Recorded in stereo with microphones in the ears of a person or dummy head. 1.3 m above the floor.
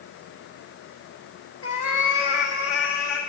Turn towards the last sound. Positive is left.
turn(degrees=60)  # may be behind; listen again after turning